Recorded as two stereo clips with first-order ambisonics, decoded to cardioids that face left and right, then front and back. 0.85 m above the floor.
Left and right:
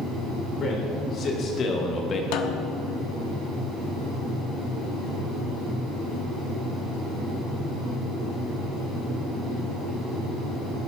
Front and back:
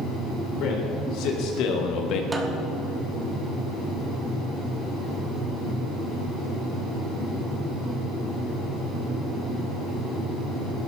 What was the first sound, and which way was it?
A man speaking, 30° left.